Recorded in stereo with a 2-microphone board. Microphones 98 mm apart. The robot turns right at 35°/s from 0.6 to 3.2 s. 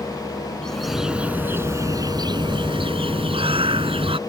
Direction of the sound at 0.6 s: 175° left.